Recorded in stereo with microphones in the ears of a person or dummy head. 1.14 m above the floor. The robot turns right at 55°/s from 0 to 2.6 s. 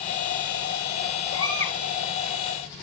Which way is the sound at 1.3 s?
40° left (ahead or behind).